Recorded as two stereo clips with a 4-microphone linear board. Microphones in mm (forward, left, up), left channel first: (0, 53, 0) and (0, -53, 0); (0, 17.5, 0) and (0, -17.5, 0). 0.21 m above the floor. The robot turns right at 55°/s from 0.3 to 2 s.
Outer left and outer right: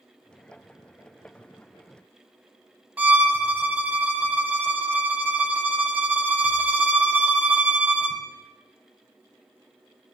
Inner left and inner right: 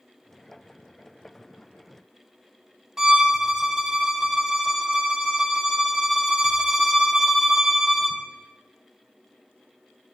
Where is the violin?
15° right (ahead or behind), 0.6 m.